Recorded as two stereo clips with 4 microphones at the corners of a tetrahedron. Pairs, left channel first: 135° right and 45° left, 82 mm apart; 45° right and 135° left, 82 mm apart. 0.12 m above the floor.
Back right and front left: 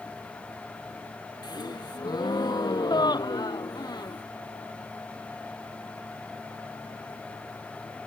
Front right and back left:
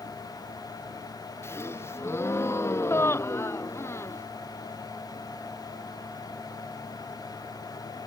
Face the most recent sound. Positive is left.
turn(degrees=-105)